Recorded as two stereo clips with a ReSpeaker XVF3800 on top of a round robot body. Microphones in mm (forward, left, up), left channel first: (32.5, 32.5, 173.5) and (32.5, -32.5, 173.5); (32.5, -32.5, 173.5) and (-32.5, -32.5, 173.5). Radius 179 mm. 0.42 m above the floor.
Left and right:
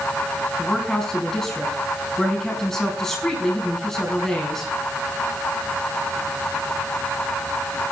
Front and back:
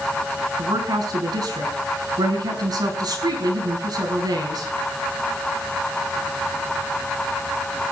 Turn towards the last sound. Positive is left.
turn(degrees=175)